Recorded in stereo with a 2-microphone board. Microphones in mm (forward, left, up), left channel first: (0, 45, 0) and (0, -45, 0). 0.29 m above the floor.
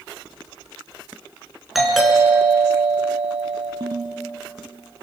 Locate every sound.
1.8 s a doorbell: centre (ahead or behind), 4 m
3.8 s a ringtone: 55° right (ahead or behind), 1.8 m